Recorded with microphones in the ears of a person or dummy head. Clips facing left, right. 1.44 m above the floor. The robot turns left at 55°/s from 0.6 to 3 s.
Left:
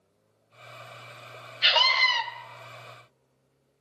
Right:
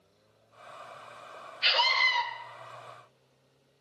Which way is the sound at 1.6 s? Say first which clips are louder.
Left 3 dB; 110° left.